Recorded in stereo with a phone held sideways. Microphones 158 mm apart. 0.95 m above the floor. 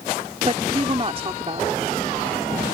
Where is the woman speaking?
35° right (ahead or behind).